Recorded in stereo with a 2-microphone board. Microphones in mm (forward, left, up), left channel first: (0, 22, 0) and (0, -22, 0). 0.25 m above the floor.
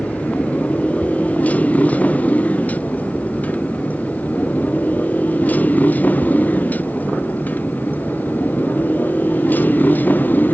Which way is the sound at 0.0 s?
35° left (ahead or behind).